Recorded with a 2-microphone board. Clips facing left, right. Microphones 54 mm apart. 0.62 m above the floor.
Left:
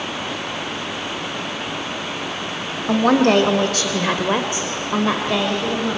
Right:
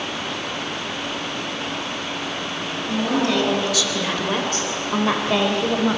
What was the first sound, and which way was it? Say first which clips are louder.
A woman speaking: left 7 dB; 65° left (ahead or behind).